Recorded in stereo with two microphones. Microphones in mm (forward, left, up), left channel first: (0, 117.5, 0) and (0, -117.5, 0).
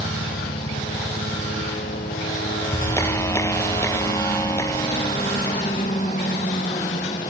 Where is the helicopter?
50° left (ahead or behind); by 7.3 s 30° left (ahead or behind).